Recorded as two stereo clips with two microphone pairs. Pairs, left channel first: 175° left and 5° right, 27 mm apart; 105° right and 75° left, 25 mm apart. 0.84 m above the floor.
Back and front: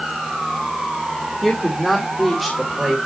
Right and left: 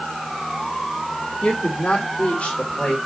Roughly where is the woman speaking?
Right.